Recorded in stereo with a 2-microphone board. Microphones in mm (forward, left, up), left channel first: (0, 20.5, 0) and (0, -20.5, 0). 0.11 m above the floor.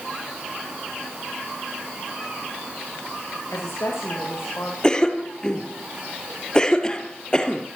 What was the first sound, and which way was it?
A woman speaking, 80° left.